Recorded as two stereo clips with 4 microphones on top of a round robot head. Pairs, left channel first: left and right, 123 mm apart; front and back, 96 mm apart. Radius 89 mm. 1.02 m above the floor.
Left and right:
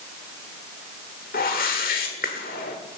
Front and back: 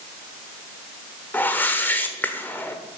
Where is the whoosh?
70° left, 1.3 m.